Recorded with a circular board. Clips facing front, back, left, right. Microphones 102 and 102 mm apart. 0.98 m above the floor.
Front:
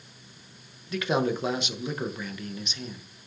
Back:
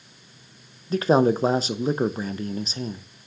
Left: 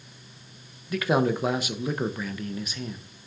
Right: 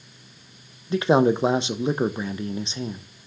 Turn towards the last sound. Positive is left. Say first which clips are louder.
# back 7 dB, right 5 dB
turn(degrees=-145)